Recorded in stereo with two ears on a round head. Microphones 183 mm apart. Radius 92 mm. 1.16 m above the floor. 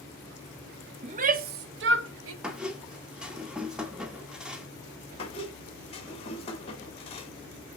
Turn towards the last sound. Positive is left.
turn(degrees=30)  # may be behind; listen again after turning